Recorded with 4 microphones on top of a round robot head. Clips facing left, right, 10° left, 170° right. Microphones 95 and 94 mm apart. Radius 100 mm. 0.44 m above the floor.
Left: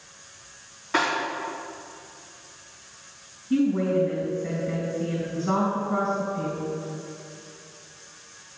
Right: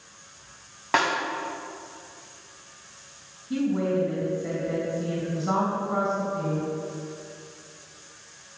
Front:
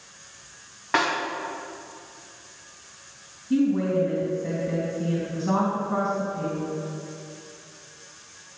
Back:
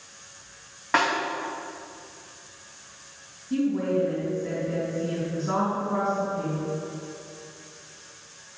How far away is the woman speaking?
About 3 m.